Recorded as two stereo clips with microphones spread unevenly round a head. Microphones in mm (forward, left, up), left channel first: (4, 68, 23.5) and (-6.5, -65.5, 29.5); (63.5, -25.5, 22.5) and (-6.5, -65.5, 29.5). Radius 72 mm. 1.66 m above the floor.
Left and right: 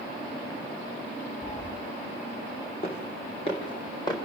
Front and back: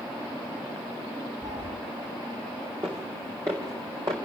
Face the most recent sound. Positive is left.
turn(degrees=145)